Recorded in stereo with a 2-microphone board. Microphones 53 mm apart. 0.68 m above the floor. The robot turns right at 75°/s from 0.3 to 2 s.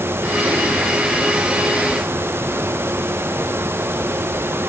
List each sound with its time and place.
Only background noise.